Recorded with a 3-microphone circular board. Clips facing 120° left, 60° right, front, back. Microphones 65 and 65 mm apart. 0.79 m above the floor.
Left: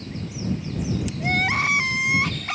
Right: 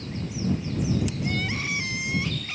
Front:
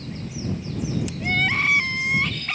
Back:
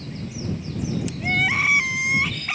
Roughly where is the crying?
Left.